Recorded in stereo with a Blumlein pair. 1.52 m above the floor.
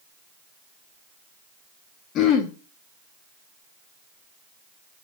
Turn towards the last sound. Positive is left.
turn(degrees=35)